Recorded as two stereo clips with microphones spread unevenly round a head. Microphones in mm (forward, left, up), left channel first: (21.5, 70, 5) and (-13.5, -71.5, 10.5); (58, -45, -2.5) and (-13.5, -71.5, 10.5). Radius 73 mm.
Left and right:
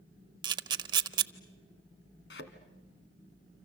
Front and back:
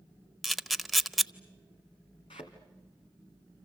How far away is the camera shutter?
About 0.8 m.